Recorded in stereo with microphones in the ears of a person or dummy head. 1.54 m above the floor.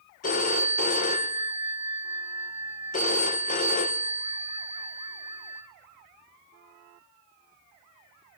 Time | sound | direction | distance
0.2 | a phone ringing | 40° left (ahead or behind) | 1.0 m